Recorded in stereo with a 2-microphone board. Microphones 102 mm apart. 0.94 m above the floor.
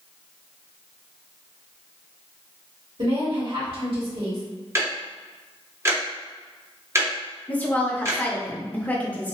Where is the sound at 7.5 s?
15° left (ahead or behind), 0.7 m.